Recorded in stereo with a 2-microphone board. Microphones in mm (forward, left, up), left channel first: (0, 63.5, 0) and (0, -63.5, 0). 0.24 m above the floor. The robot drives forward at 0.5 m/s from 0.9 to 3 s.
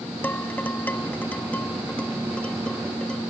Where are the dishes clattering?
15° left (ahead or behind); by 3.2 s 10° left (ahead or behind).